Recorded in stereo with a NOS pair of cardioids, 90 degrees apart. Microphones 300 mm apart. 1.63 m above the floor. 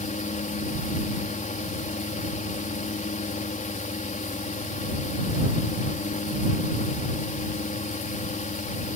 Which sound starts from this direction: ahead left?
A fan, at 0.0 s.